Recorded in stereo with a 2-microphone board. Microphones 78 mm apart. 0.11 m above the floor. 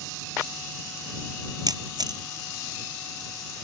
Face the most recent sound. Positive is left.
turn(degrees=-65)  # may be behind; listen again after turning